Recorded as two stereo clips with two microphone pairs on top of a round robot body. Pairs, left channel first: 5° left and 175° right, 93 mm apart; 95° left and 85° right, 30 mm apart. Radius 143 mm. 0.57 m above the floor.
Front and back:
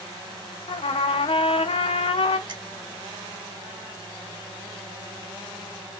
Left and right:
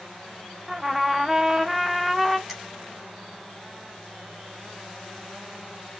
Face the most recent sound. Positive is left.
turn(degrees=-160)